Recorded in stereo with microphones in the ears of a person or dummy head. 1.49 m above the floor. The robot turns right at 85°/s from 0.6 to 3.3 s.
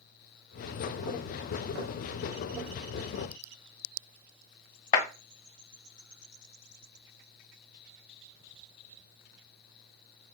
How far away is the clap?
About 1.1 m.